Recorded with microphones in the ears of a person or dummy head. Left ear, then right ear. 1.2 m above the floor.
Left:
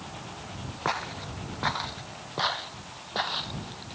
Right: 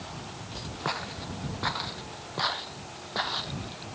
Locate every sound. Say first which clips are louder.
0.8 s footsteps: left 3 dB; 25° left (ahead or behind); by 3.9 s 5° left (ahead or behind)